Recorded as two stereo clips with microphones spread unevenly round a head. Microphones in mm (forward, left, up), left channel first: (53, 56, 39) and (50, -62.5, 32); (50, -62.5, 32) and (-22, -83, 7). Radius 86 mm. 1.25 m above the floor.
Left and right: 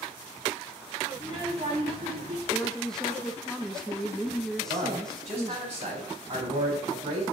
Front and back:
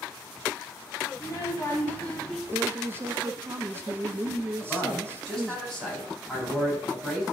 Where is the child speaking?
35° right, 2.5 m; by 2.4 s 65° right, 1.7 m.